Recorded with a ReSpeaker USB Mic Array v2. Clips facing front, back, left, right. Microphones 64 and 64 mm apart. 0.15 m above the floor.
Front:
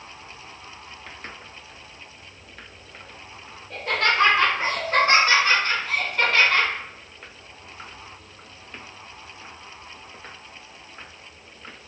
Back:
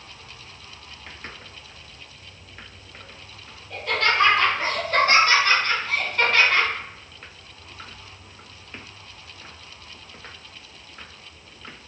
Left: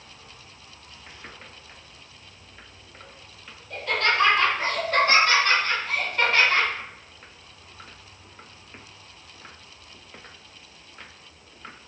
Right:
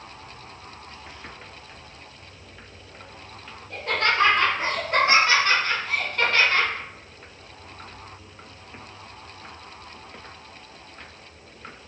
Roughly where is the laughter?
Ahead right.